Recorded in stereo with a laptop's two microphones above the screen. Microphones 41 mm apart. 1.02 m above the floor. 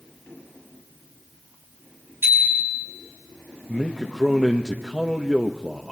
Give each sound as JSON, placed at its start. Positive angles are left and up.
{"t": 2.2, "sound": "a bicycle bell", "side_deg": -55, "distance_m": 5.5}
{"t": 3.7, "sound": "a man speaking", "side_deg": -10, "distance_m": 1.3}